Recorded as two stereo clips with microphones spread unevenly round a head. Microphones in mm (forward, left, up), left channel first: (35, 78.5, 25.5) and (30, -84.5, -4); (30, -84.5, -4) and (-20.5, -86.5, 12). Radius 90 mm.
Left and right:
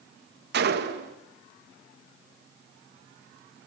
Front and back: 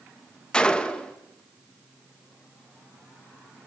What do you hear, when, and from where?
0.5 s a gunshot: 70° right, 1.7 m